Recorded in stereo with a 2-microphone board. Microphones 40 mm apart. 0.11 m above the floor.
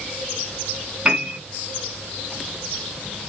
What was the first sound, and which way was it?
A piano, 20° right (ahead or behind).